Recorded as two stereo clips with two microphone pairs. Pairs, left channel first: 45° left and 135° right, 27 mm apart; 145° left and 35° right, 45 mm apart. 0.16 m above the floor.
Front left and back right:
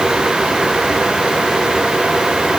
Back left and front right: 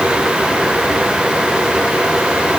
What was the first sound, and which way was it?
Only background noise.